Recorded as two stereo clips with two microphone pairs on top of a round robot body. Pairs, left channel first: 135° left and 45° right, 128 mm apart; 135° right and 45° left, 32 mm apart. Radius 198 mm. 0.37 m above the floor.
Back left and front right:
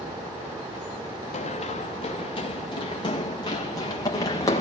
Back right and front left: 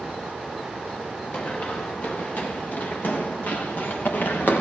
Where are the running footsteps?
175° left, 3.5 m; by 4.6 s 160° right, 5 m.